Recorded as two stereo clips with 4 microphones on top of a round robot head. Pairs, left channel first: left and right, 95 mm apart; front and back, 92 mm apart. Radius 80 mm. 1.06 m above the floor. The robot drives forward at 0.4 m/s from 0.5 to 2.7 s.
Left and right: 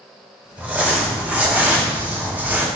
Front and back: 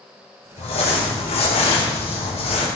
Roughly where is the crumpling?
Ahead.